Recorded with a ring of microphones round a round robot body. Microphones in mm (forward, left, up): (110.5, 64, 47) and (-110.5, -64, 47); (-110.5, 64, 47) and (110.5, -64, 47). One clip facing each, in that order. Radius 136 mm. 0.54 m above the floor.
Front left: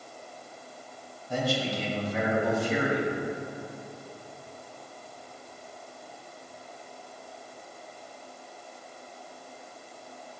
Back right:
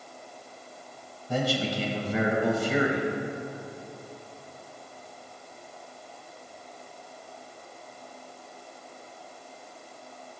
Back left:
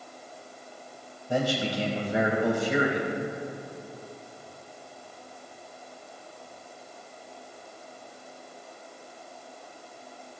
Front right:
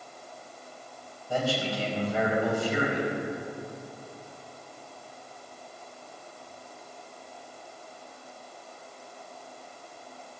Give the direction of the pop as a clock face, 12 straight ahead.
No pop in this recording.